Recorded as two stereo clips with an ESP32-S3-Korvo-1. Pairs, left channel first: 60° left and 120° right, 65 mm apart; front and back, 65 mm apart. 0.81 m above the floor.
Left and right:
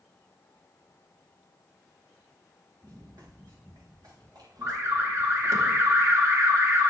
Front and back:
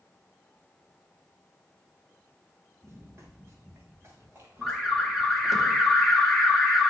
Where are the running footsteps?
135° right, 3.5 m; by 5.6 s 125° right, 5.5 m.